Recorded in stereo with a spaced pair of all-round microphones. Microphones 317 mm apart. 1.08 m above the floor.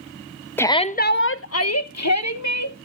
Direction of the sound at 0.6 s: 5° left (ahead or behind).